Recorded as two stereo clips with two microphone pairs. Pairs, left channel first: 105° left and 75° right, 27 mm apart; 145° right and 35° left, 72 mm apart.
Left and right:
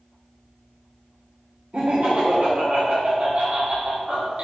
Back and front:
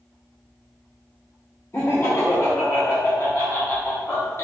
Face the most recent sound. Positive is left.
turn(degrees=-100)